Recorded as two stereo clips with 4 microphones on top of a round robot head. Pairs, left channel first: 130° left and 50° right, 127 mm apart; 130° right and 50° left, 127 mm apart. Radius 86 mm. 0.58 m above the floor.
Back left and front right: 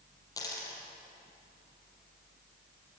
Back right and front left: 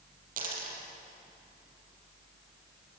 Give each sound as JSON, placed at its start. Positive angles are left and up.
{"t": 0.4, "sound": "a dropped coin", "azimuth_deg": 65, "distance_m": 5.0}